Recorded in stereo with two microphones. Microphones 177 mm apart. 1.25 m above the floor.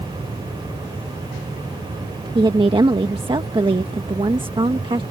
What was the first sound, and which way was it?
A woman speaking, 30° right (ahead or behind).